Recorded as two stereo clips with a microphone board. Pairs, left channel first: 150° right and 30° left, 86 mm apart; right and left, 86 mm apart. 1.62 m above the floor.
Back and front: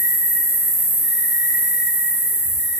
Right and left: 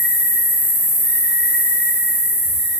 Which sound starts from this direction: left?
An insect, at 0.0 s.